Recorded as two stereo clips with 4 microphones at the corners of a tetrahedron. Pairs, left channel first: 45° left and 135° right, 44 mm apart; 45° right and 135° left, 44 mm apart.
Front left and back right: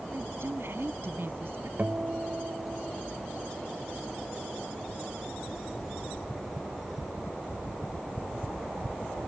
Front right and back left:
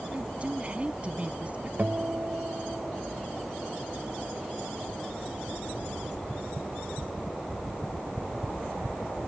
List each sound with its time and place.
0.1 s a woman speaking: 165° right
1.8 s a guitar: straight behind